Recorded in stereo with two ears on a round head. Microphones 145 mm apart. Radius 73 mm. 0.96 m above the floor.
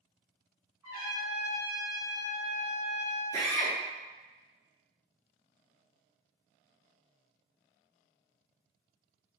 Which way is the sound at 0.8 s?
15° right (ahead or behind).